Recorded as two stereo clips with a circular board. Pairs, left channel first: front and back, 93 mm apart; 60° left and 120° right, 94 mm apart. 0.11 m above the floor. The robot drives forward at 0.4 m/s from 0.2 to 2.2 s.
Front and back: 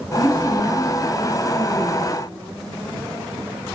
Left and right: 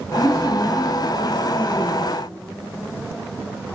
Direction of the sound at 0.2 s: 105° left.